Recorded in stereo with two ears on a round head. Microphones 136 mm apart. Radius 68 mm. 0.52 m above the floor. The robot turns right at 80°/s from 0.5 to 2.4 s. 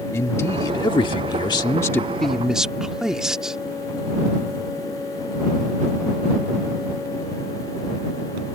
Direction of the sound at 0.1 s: 35° left.